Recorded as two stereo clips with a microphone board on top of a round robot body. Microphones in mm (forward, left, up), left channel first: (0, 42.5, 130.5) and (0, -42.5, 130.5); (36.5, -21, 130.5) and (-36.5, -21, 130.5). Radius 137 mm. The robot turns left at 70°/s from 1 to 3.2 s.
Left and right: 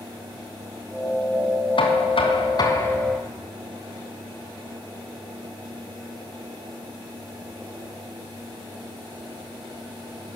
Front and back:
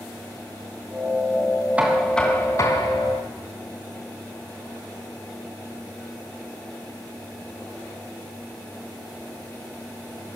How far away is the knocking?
About 3 m.